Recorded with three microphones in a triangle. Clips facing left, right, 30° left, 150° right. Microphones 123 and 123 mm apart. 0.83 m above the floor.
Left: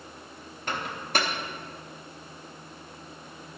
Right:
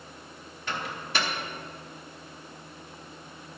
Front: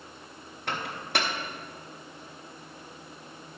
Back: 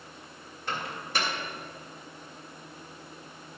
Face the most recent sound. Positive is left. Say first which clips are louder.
# left 2 dB, front 2 dB
turn(degrees=50)